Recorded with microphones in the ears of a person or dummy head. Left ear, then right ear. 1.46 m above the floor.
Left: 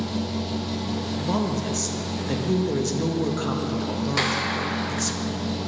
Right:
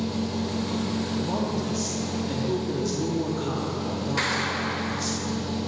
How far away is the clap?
About 1.0 m.